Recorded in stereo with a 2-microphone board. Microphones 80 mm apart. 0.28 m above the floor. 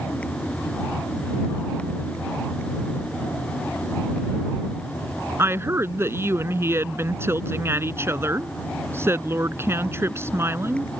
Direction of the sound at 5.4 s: 30° right (ahead or behind).